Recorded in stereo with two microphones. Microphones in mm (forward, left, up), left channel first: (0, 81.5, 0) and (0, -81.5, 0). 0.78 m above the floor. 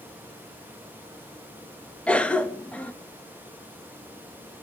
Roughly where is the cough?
Centre.